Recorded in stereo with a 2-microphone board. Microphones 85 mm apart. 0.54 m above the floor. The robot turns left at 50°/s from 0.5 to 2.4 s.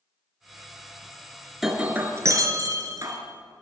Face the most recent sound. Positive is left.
turn(degrees=-40)